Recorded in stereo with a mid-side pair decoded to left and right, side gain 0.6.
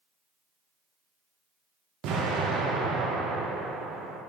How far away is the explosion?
About 1.1 m.